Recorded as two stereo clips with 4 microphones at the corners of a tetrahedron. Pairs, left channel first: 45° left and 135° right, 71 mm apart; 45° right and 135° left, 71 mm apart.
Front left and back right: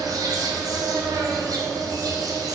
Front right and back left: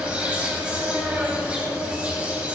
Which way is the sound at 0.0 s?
155° right.